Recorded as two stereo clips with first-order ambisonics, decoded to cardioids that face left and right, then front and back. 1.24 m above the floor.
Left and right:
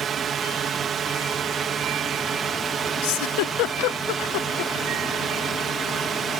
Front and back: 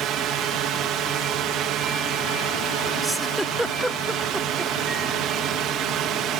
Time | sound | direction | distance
0.0 | a drone | 145° right | ?
3.0 | a giggle | 90° left | ?